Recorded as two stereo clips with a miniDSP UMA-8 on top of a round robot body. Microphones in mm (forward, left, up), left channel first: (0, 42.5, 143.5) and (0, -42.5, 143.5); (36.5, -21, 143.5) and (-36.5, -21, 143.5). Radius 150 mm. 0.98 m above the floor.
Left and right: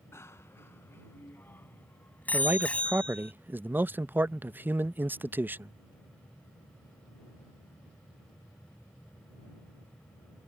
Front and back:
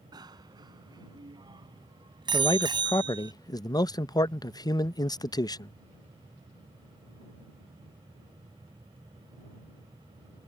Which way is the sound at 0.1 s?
150° left.